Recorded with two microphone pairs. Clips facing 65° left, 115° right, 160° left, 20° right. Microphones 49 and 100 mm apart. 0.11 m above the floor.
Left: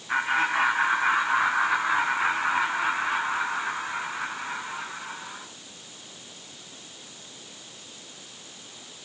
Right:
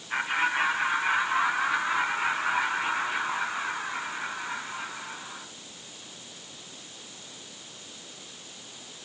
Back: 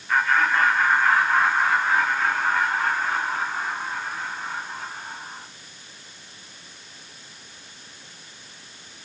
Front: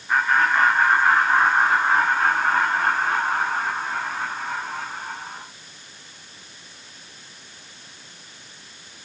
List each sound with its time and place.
0.1 s laughter: 60° left, 7 m; by 5.5 s 5° left, 9 m